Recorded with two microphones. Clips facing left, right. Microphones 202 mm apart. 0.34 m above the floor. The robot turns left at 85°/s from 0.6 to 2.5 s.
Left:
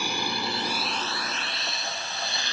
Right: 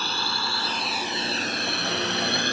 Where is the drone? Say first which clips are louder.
Left 2 dB; 15° left (ahead or behind); by 2.5 s 50° right (ahead or behind).